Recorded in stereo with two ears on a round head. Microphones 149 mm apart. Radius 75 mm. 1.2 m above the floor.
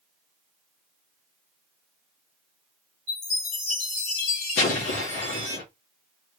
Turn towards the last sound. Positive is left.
turn(degrees=85)